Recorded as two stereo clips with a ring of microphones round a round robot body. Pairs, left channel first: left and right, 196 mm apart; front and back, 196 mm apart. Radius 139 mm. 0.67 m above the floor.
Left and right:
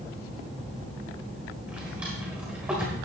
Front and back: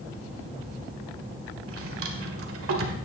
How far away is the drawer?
About 1.7 m.